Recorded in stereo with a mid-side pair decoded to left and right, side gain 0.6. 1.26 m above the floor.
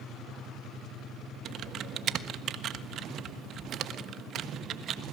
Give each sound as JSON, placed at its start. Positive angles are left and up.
{"t": 1.4, "sound": "typing on a keyboard", "azimuth_deg": -50, "distance_m": 1.3}